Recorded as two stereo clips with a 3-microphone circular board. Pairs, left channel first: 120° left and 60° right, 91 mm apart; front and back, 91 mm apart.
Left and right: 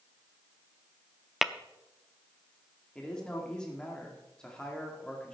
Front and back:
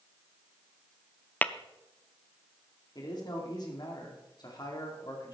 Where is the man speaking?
40° left, 2.5 m.